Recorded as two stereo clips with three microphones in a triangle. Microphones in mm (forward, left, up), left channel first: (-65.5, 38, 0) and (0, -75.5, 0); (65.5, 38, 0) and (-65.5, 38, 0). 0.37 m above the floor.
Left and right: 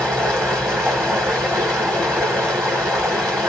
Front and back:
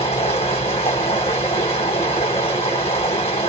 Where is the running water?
30° left, 1.7 m.